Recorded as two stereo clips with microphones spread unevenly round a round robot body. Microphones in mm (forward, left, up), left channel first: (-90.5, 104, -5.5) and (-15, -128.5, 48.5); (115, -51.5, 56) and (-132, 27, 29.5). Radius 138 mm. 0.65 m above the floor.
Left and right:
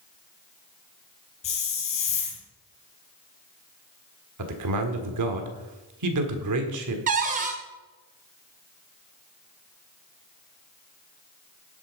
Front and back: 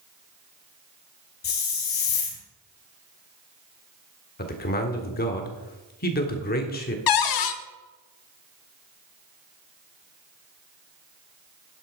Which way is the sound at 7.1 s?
10° right.